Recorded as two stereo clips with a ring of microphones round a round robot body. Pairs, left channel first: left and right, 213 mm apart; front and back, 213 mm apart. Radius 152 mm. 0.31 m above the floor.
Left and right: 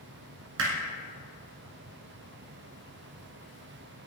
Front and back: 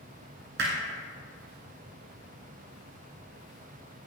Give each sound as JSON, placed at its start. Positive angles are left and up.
{"t": 0.6, "sound": "hammering", "azimuth_deg": -130, "distance_m": 1.6}